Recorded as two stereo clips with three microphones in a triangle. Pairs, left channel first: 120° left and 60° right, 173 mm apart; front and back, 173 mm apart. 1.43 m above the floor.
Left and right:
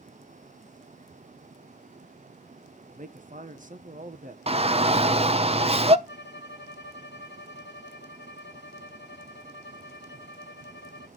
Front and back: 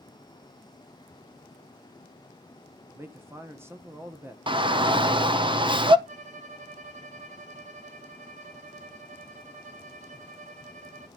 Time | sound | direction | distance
2.9 | a man speaking | 105° right | 1.4 m
4.5 | a shout | 120° right | 0.9 m
6.1 | a violin | 130° left | 1.3 m